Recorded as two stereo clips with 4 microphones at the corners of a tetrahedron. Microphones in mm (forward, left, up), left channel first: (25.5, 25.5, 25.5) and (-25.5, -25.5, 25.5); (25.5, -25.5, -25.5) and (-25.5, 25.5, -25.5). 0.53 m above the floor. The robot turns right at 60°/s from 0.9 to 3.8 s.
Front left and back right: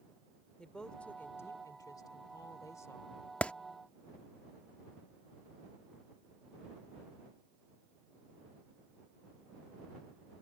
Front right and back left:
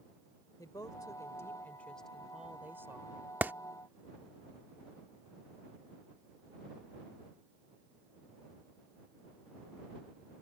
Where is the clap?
105° left; by 3.5 s 110° left.